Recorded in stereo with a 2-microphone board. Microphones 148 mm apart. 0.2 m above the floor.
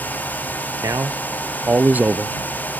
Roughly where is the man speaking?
Right.